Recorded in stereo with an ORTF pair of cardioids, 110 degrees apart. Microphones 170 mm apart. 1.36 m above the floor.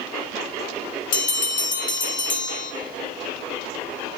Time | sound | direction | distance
1.1 | a bell | 50° left | 1.5 m